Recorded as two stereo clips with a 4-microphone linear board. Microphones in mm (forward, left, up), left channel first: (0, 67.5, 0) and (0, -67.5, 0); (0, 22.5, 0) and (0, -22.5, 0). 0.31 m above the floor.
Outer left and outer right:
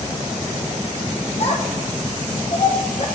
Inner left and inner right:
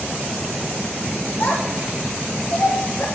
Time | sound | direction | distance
1.4 | a child speaking | 55° left (ahead or behind) | 1.6 m